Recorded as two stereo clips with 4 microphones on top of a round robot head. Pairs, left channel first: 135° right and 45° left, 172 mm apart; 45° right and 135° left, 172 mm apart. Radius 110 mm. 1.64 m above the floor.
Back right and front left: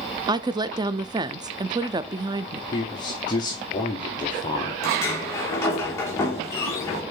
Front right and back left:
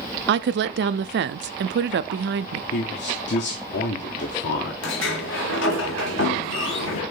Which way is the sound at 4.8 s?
60° right.